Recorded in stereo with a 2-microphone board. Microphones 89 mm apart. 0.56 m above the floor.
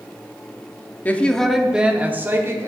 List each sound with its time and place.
1.1 s a woman speaking: 20° left (ahead or behind), 0.6 m; by 2.7 s 30° right (ahead or behind), 1.0 m